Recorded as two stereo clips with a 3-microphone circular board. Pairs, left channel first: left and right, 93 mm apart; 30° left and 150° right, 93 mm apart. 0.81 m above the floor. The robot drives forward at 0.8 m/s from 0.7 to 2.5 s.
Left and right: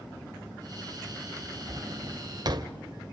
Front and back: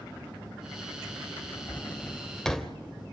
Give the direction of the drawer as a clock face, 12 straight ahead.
1 o'clock.